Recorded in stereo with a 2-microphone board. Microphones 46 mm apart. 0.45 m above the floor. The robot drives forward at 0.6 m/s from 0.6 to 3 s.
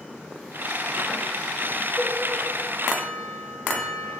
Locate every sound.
2.0 s a cowbell: centre (ahead or behind), 5.5 m